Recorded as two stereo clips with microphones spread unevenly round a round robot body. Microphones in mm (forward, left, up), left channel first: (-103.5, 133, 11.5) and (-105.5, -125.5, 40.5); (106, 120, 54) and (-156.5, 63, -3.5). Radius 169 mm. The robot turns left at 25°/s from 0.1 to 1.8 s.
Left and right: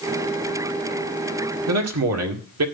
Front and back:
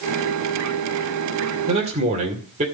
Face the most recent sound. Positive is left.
turn(degrees=-105)